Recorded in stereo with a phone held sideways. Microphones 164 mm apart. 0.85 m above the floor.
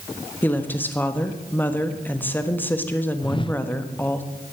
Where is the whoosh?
30° left (ahead or behind), 0.6 m.